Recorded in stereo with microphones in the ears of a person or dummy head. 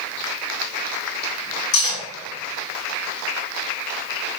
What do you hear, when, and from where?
1.7 s cutlery clinking: 55° left (ahead or behind), 1.5 m